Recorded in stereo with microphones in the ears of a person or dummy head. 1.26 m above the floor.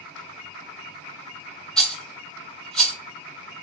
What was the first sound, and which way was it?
A rattle, centre (ahead or behind).